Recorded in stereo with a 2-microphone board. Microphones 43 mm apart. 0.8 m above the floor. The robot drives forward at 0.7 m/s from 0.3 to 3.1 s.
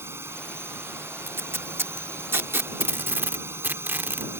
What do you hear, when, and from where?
0.0 s a drone: 80° right; by 4.4 s 75° right (ahead or behind)
1.3 s tape being pulled: 70° right (ahead or behind); by 4.3 s 55° right (ahead or behind)